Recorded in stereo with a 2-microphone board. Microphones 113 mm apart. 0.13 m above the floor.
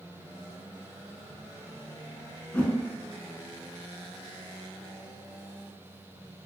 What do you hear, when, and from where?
2.5 s a whoosh: 15° left (ahead or behind), 0.7 m